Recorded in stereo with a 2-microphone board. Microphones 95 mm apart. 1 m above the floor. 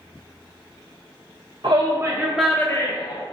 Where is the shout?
50° right (ahead or behind), 0.7 m; by 3.2 s 45° left (ahead or behind), 0.8 m.